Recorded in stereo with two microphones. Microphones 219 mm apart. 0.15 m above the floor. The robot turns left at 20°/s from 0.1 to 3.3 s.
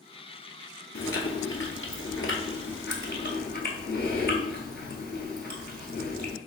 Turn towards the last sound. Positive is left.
turn(degrees=55)